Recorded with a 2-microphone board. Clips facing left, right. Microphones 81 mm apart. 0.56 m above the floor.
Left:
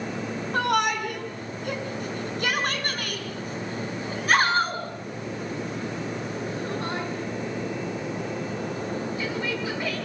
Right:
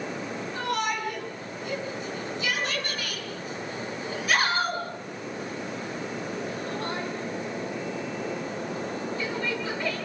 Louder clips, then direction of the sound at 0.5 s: Left 6 dB; 70° left (ahead or behind).